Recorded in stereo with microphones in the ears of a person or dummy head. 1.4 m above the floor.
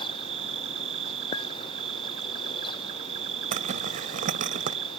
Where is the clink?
30° left (ahead or behind).